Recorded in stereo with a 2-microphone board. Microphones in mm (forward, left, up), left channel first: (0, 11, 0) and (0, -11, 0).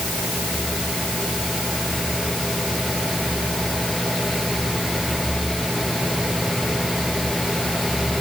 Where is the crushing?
No crushing in this recording.